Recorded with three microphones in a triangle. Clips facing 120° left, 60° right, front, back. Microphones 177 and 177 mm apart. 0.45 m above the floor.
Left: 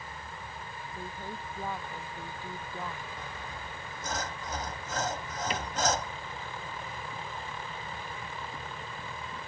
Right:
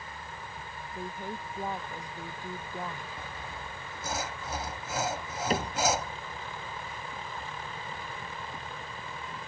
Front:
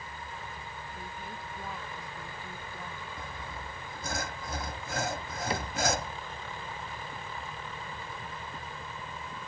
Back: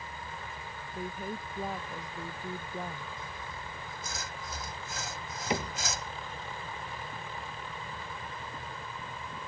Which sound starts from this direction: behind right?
A woman speaking, at 0.9 s.